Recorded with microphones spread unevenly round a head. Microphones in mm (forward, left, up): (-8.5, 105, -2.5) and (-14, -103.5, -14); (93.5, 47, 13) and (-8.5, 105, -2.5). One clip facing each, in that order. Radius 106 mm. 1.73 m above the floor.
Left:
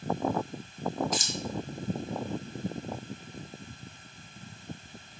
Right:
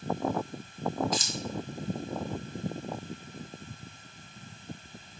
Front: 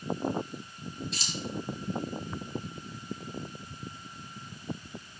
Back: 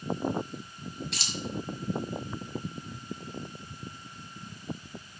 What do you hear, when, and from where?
1.1 s keys jangling: 130° left, 1.7 m